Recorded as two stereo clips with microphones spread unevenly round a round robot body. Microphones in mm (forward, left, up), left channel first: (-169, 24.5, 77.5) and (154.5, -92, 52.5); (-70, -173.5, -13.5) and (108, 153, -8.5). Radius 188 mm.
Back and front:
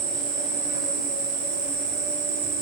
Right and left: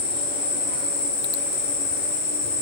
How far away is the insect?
About 1.7 m.